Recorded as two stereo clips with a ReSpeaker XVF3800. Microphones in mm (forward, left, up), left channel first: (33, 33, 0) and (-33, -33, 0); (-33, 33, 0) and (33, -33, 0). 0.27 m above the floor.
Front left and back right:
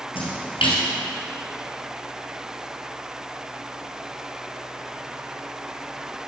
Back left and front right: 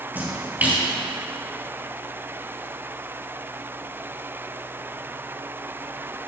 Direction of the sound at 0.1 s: 25° left.